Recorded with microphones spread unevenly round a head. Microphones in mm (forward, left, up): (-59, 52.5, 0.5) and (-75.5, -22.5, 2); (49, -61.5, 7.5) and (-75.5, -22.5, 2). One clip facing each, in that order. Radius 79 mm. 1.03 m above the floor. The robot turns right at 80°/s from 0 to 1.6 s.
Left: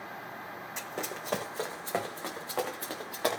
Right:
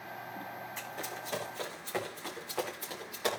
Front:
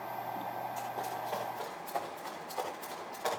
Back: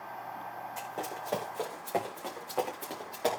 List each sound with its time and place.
0.8 s running footsteps: 80° left, 2.5 m; by 3.4 s 110° left, 6 m